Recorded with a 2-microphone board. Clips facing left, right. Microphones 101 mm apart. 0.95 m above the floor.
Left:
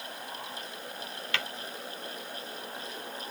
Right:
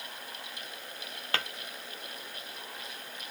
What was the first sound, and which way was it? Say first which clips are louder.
Tapping: right 1 dB; 40° right (ahead or behind).